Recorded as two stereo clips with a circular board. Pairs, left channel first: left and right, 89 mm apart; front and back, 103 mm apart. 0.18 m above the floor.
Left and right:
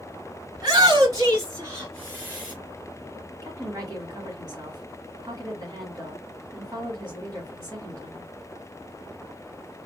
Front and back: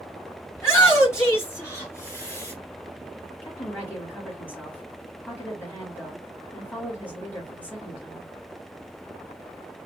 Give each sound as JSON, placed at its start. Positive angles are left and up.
{"t": 0.6, "sound": "a shout", "azimuth_deg": -60, "distance_m": 2.5}
{"t": 3.4, "sound": "a woman speaking", "azimuth_deg": -60, "distance_m": 2.0}